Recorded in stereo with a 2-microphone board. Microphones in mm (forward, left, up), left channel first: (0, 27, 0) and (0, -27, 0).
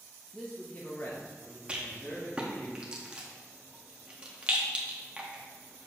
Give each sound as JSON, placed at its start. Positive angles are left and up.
{"t": 0.3, "sound": "a man speaking", "side_deg": 5, "distance_m": 0.7}
{"t": 1.7, "sound": "a rattle", "side_deg": -20, "distance_m": 1.2}